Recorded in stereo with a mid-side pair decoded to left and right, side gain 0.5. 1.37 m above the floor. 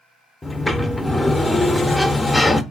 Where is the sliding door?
15° left, 0.5 m.